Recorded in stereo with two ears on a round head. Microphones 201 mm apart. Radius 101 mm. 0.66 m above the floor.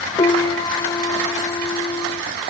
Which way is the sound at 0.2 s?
20° left (ahead or behind).